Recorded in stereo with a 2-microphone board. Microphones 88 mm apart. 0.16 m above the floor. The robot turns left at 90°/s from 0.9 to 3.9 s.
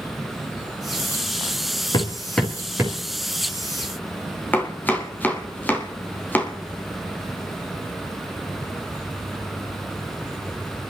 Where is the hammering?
50° left (ahead or behind), 3.5 m; by 3.0 s 45° right (ahead or behind), 3.5 m.